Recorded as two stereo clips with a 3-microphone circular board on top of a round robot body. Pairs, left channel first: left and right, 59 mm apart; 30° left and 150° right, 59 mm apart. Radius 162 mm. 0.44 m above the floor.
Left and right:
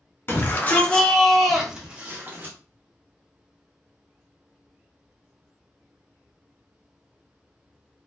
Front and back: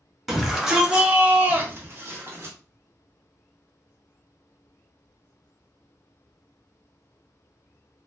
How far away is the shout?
About 1.3 m.